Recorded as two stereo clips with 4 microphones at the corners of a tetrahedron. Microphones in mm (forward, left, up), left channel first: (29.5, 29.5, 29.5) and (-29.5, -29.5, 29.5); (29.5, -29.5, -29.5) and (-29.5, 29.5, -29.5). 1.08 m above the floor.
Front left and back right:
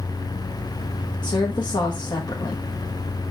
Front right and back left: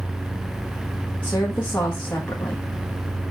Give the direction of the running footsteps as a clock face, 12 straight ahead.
I don't hear running footsteps.